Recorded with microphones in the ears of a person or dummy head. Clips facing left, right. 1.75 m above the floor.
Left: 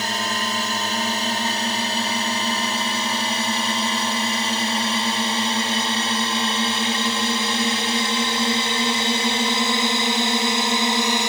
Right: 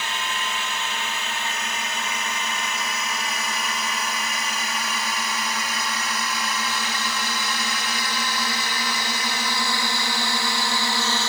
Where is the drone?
35° left (ahead or behind); by 11.3 s 15° left (ahead or behind).